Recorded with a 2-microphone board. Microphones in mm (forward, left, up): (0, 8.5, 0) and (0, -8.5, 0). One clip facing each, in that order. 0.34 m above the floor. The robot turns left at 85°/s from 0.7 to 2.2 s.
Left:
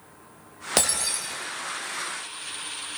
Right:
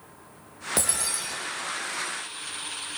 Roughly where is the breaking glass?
Ahead left.